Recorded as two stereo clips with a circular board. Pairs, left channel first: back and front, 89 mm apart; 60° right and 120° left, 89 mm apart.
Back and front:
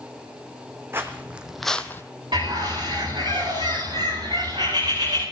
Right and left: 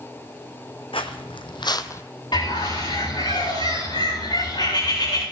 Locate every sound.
0.9 s footsteps: 60° right, 1.3 m; by 2.0 s 120° right, 0.7 m
2.3 s a bird: 30° right, 8.5 m